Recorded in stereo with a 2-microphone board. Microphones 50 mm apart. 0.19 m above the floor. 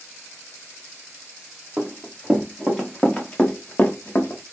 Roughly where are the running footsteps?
Centre.